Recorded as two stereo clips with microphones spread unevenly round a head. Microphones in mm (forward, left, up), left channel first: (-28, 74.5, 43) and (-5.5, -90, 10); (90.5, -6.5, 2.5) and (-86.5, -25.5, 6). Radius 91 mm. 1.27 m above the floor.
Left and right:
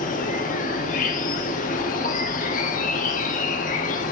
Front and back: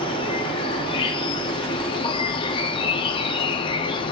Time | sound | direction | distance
0.0 | an insect | 70° left | 1.0 m